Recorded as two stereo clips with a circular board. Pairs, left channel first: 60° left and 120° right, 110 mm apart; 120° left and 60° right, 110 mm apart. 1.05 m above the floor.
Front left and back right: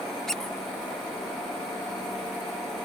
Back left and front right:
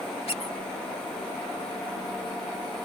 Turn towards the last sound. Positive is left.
turn(degrees=145)